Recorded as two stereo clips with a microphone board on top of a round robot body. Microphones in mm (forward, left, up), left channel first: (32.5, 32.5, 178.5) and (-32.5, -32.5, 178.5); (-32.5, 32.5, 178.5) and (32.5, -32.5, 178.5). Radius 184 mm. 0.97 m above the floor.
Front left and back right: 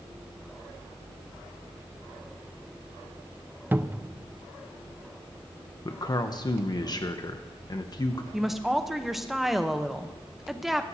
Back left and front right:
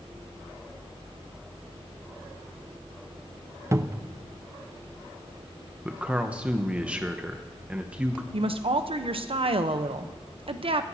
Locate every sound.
3.7 s a cupboard door: 80° right, 0.7 m
5.8 s a man speaking: 30° left, 1.0 m
8.3 s a woman speaking: 50° right, 1.0 m